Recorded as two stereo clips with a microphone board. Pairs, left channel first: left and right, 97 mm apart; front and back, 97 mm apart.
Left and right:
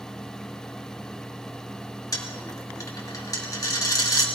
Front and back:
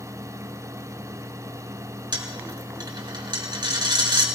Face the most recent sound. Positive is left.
turn(degrees=140)